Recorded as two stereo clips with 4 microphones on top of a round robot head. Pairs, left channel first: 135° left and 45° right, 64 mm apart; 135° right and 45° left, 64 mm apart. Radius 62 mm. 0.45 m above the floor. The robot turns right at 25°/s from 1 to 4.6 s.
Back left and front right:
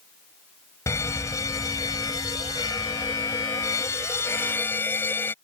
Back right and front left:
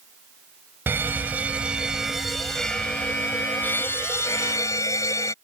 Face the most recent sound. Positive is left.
turn(degrees=-170)